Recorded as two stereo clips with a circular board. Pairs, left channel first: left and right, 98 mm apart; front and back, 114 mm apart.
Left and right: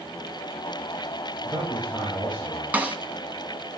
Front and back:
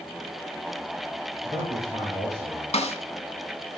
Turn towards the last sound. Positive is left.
turn(degrees=-15)